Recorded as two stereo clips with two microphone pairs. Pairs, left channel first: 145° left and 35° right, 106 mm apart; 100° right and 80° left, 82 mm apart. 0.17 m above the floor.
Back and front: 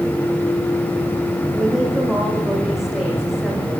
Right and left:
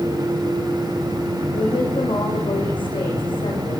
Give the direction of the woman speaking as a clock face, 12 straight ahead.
4 o'clock.